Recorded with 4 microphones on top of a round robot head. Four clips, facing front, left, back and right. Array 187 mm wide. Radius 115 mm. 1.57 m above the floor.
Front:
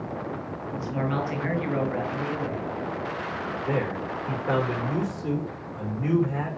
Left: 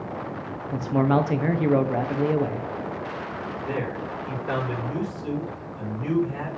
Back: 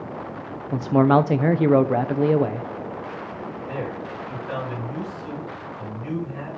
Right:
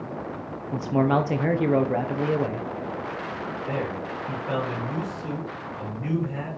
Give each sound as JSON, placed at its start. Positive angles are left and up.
{"t": 0.7, "sound": "a man speaking", "azimuth_deg": -175, "distance_m": 1.2}
{"t": 3.7, "sound": "a man speaking", "azimuth_deg": 25, "distance_m": 6.0}